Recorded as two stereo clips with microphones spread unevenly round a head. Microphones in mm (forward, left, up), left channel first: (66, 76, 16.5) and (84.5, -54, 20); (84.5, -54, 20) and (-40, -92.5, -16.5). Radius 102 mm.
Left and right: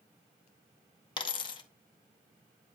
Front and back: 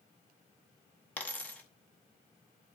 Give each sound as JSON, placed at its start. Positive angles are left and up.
{"t": 1.2, "sound": "a dropped coin", "azimuth_deg": 70, "distance_m": 0.8}